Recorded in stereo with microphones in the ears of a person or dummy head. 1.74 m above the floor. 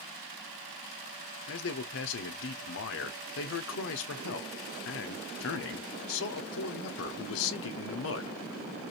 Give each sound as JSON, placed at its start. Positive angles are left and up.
{"t": 1.5, "sound": "a man speaking", "side_deg": 70, "distance_m": 1.0}